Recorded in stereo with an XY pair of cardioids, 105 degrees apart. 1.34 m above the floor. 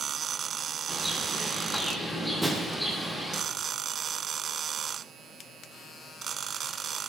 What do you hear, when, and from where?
0.9 s a bird: straight ahead, 8 m
2.4 s breaking glass: 10° right, 8.5 m